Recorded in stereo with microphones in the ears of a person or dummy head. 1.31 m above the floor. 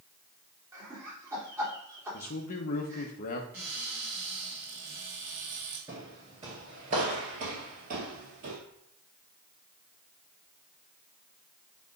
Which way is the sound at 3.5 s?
10° right (ahead or behind).